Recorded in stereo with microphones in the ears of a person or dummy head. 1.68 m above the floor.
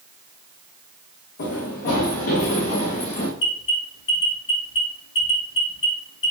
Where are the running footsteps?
60° left (ahead or behind), 5.5 m; by 3.3 s 40° left (ahead or behind), 5 m.